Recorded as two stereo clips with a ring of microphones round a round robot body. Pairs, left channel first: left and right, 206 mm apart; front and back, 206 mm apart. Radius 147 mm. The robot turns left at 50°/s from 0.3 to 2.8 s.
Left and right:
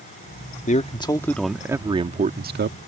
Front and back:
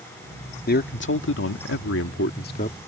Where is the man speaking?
40° left; by 2.8 s 65° right.